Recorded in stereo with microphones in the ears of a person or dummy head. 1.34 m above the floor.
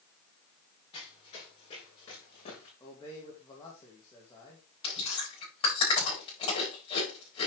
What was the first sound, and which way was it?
Running footsteps, 30° left (ahead or behind).